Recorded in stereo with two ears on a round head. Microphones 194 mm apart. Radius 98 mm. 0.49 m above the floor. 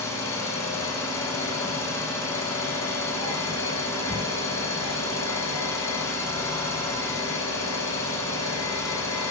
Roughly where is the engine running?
Centre.